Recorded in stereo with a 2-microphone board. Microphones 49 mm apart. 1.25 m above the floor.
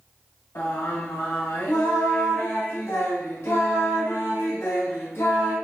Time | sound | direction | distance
0.6 | singing | 65° left (ahead or behind) | 1.1 m